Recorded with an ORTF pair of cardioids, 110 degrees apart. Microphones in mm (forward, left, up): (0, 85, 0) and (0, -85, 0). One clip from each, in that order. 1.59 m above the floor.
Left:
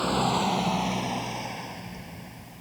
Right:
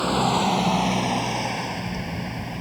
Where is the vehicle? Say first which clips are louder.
Right 4 dB; 20° right; by 2.6 s 80° right.